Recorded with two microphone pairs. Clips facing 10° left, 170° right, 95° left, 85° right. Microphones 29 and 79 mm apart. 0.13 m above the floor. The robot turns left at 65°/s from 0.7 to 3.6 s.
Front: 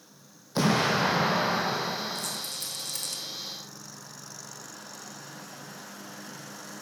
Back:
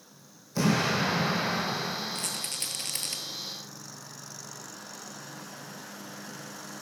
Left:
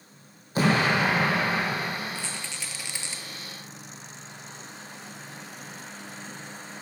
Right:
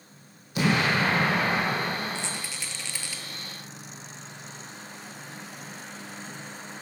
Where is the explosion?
45° left, 1.9 m; by 2.4 s 70° right, 1.9 m.